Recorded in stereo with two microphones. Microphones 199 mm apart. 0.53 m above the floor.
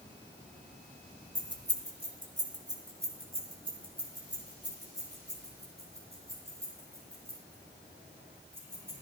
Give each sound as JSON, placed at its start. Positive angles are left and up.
{"t": 1.4, "sound": "keys jangling", "side_deg": -70, "distance_m": 1.6}